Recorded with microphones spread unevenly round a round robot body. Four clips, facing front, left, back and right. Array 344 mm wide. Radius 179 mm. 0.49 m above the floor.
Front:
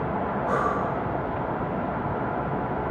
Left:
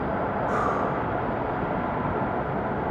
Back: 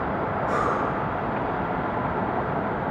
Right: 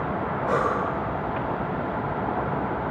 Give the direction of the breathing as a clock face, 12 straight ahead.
2 o'clock.